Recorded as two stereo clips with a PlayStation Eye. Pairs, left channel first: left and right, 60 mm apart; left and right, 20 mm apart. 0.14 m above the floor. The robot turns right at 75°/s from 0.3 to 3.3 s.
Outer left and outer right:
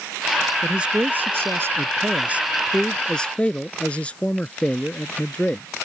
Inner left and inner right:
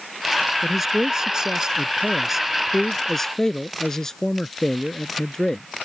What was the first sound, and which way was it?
A man speaking, 165° right.